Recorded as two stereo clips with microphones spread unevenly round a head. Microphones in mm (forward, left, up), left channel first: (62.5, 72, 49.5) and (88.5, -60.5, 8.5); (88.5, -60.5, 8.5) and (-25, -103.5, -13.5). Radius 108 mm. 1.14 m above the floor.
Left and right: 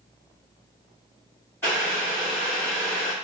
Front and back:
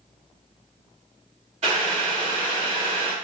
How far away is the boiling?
About 0.7 m.